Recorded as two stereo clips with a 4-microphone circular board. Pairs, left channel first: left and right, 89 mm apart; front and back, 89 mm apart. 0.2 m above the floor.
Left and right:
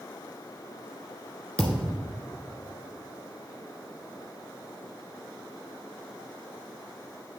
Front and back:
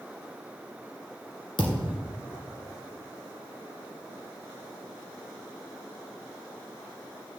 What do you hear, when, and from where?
1.6 s a thud: 15° left, 1.5 m